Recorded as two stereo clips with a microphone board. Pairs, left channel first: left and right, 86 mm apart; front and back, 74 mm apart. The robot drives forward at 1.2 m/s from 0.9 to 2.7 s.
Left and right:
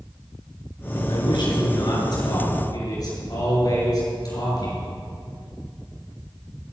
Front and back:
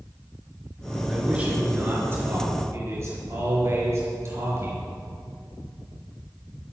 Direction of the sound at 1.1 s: 105° left.